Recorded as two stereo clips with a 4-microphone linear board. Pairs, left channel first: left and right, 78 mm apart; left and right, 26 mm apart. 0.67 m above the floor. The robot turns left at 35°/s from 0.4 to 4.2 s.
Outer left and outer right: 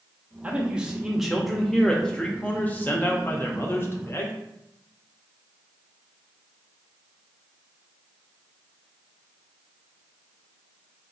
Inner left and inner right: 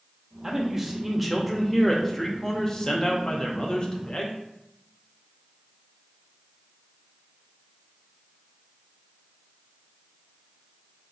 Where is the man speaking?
145° right, 0.6 m; by 4.4 s 85° left, 0.6 m.